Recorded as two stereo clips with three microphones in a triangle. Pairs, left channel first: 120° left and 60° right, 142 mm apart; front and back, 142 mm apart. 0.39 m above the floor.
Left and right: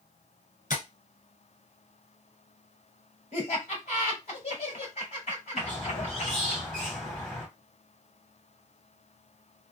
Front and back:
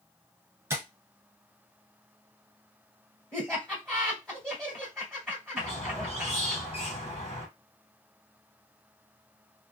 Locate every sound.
0.7 s tapping: 110° left, 1.2 m
3.3 s laughter: 85° left, 2.5 m
5.6 s a squeak: 40° left, 1.4 m